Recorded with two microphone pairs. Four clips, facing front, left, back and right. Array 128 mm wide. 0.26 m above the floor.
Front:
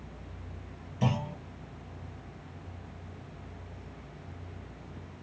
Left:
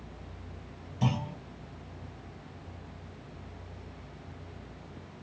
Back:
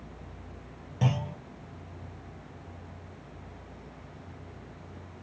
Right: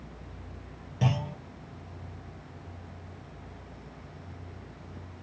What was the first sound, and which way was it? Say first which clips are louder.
A clunk: right 1 dB, even; 155° right.